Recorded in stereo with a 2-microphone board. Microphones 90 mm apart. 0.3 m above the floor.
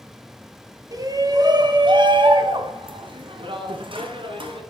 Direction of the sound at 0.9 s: 40° right (ahead or behind).